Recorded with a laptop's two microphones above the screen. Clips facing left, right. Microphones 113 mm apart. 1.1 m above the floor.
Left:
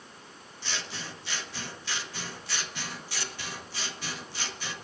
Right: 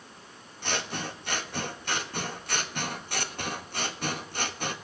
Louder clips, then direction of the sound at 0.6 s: Right 6 dB; 55° right (ahead or behind).